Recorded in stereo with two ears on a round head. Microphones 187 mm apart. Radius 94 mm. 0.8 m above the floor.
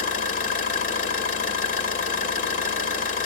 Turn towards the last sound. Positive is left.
turn(degrees=40)  # may be behind; listen again after turning